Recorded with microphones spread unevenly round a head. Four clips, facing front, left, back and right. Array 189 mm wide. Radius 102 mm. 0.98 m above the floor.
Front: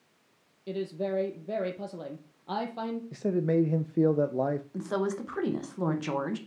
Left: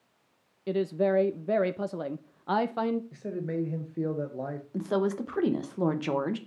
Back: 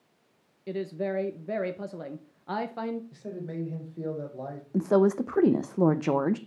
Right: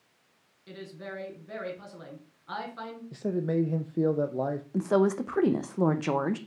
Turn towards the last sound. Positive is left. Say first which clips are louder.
# right 3 dB, back 8 dB
turn(degrees=-170)